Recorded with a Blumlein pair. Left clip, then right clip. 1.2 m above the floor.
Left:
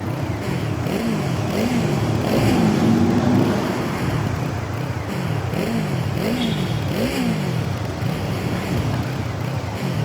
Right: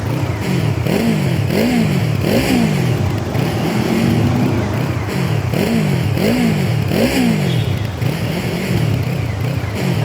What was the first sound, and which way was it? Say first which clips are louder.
A motorcycle: right 4 dB; 70° right.